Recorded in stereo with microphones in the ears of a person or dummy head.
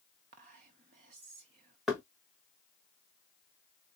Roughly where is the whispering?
Right.